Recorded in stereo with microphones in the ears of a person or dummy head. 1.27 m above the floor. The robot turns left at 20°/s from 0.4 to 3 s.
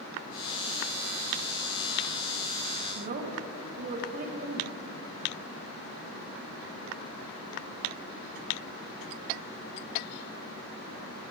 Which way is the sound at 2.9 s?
50° right (ahead or behind).